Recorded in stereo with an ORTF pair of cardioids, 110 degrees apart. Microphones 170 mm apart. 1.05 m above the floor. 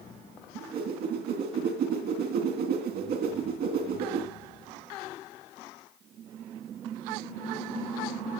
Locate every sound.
0.6 s a whoosh: 70° right, 3 m